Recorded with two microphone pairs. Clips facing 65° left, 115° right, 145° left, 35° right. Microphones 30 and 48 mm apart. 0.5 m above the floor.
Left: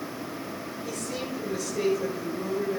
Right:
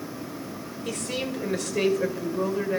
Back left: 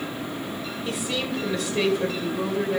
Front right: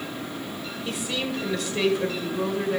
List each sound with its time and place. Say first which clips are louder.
0.8 s a woman speaking: right 4 dB, back left 1 dB; 125° right, 1.6 m